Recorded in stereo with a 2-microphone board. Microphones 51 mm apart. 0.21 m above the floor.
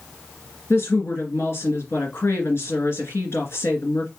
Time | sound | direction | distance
0.7 | a woman speaking | 60° left (ahead or behind) | 2.5 m